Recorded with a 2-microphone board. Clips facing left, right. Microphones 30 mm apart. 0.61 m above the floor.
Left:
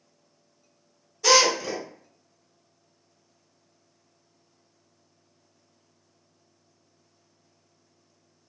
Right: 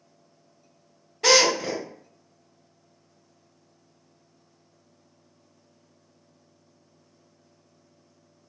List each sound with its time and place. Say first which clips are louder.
1.2 s a drill: even; 75° right (ahead or behind), 1.6 m